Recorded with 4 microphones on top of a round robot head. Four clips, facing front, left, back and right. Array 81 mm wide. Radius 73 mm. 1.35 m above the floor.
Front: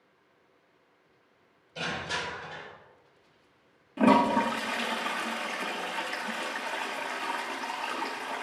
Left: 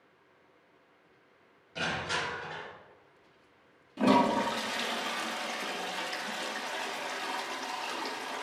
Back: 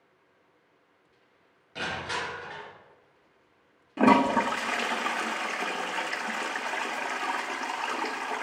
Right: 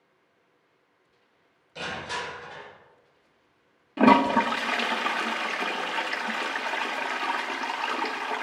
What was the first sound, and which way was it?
Crushing, 150° left.